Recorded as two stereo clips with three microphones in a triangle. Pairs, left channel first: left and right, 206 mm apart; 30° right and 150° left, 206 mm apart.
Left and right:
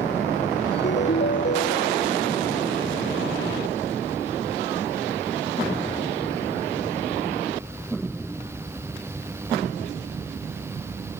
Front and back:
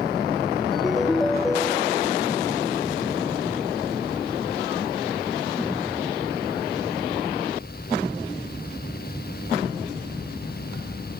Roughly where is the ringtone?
Ahead left.